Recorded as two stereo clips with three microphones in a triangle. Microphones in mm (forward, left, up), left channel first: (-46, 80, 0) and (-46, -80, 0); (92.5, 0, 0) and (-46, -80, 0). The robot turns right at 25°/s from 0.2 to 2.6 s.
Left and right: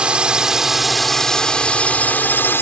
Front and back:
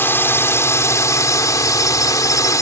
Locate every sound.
0.0 s a drone: 20° right; by 2.6 s 40° left